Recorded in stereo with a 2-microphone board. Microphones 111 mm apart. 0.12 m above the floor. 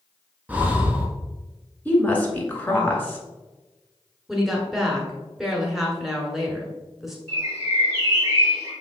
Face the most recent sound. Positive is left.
turn(degrees=-30)  # may be behind; listen again after turning